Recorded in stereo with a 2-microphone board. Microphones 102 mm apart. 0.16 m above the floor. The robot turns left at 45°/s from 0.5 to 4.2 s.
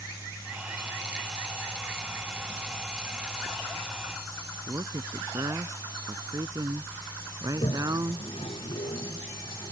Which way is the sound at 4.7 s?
35° right (ahead or behind).